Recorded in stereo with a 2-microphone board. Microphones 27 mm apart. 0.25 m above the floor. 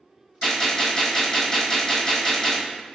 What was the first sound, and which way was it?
A gunshot, 20° left (ahead or behind).